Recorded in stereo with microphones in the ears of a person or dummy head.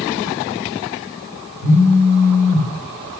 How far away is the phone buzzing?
About 0.7 m.